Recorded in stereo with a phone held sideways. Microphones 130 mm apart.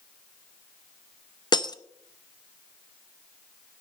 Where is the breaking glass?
35° left (ahead or behind), 0.7 m.